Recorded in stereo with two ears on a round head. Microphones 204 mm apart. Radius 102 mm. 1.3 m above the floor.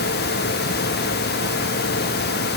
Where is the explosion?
No explosion in this recording.